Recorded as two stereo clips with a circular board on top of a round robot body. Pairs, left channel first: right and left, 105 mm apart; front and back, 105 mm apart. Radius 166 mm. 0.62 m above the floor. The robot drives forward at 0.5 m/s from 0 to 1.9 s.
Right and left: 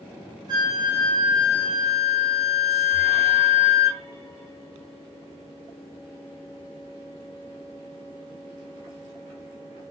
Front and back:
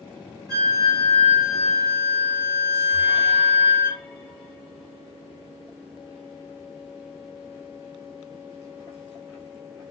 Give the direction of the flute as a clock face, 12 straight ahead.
8 o'clock.